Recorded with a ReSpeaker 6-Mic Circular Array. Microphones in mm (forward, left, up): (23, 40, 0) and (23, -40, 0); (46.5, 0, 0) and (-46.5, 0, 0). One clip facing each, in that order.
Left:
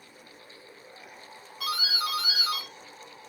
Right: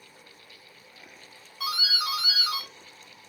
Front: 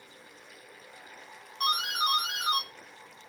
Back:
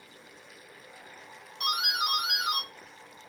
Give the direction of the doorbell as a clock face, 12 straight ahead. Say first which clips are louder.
Even, front 2 dB; 12 o'clock.